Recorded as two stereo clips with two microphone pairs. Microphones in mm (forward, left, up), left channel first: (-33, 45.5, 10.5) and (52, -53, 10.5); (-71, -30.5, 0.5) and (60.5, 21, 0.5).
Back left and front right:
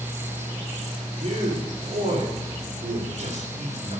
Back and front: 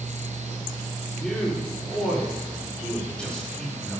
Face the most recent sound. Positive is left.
turn(degrees=-75)